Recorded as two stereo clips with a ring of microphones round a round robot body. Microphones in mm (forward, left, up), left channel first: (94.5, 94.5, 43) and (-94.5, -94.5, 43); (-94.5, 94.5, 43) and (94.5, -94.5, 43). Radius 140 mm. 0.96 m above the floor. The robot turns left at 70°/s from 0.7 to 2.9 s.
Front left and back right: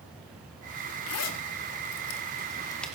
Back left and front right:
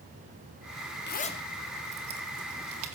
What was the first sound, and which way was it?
A zipper, 85° left.